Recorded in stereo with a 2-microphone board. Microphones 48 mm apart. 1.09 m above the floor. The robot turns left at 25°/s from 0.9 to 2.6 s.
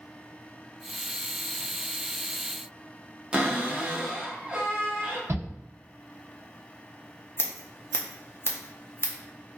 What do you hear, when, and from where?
3.3 s a cupboard door: 20° right (ahead or behind), 0.6 m
5.3 s a shout: 55° right (ahead or behind), 1.1 m
7.4 s scissors: 50° left (ahead or behind), 0.7 m